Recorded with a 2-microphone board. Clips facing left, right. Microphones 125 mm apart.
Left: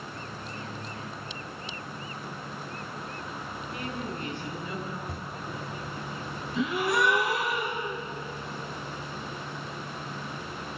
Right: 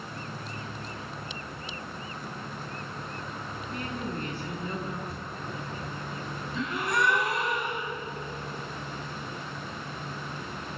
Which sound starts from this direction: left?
A camera shutter, at 5.1 s.